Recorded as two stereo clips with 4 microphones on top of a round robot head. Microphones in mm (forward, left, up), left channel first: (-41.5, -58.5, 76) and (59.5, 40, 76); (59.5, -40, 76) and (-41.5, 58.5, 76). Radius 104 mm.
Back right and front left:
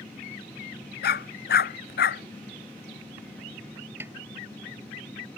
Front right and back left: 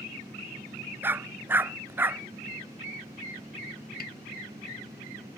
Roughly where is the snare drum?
Ahead right.